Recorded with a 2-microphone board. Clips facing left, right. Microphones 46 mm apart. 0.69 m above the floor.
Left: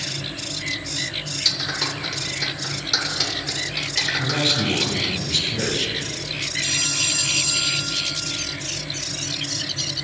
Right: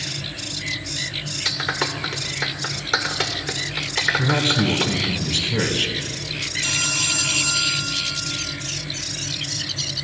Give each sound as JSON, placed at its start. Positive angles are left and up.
{"t": 1.4, "sound": "a clap", "side_deg": -40, "distance_m": 1.8}
{"t": 4.2, "sound": "a man speaking", "side_deg": -45, "distance_m": 3.0}
{"t": 6.6, "sound": "a phone ringing", "side_deg": -85, "distance_m": 2.5}